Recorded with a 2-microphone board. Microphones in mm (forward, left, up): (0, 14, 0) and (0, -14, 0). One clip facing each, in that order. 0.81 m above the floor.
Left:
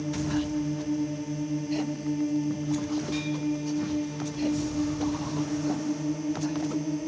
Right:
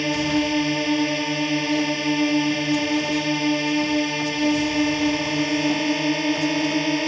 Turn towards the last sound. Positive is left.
turn(degrees=-85)